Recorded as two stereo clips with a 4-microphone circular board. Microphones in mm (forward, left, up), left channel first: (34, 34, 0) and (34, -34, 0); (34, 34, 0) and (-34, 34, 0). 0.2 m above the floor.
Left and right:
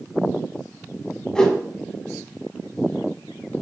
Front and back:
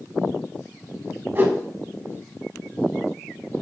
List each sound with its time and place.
1.4 s a whoosh: 160° left, 1.3 m